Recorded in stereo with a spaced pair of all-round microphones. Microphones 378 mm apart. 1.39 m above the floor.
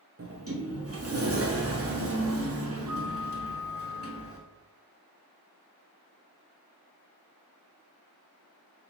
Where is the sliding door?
40° right (ahead or behind), 0.6 m.